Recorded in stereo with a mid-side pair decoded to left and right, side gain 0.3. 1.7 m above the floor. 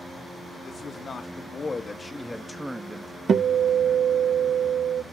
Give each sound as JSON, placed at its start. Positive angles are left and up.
{"t": 0.7, "sound": "a man speaking", "azimuth_deg": 70, "distance_m": 1.5}
{"t": 3.3, "sound": "a guitar", "azimuth_deg": -70, "distance_m": 0.5}